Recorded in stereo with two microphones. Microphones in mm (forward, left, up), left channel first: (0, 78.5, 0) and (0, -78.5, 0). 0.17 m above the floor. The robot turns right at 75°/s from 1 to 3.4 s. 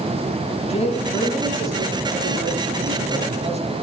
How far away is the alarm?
I don't hear an alarm.